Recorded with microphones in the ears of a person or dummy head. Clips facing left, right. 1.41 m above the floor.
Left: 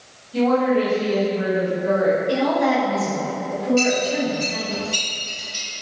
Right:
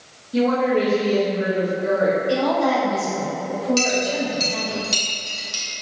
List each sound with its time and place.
0.3 s a woman speaking: 45° right (ahead or behind), 1.2 m
2.3 s a woman speaking: 25° left (ahead or behind), 1.5 m
3.8 s a clink: 65° right (ahead or behind), 1.4 m